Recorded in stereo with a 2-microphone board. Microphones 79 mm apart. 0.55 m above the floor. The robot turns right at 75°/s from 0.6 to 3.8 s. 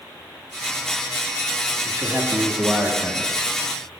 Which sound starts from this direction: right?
A man speaking, at 1.9 s.